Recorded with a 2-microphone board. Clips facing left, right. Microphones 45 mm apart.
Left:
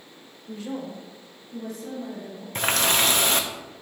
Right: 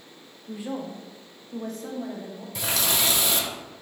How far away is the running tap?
About 0.6 m.